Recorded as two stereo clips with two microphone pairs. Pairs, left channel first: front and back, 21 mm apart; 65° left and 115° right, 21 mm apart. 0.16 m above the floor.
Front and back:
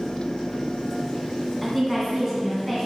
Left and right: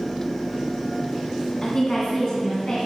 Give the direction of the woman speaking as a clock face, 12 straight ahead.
9 o'clock.